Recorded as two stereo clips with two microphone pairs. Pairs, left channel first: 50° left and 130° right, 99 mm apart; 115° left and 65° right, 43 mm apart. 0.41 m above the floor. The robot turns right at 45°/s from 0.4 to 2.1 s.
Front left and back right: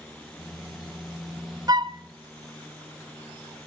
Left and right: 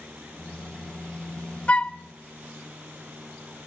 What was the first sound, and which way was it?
A flute, 175° left.